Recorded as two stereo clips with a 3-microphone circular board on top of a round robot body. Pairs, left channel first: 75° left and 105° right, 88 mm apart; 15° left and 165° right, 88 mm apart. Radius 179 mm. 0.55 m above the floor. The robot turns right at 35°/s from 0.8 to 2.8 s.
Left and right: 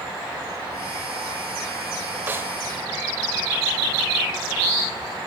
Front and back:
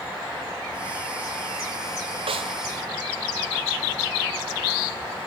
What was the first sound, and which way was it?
A snare drum, 175° right.